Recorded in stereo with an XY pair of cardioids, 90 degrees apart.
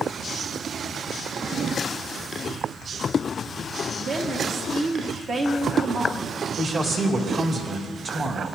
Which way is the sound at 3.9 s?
55° right.